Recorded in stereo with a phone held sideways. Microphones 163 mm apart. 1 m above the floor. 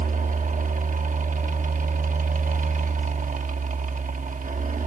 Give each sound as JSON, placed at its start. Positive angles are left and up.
{"t": 0.0, "sound": "a fan", "side_deg": -55, "distance_m": 0.9}